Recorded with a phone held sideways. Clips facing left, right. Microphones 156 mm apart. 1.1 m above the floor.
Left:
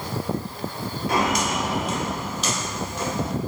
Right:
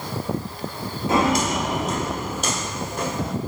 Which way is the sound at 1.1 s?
25° right (ahead or behind).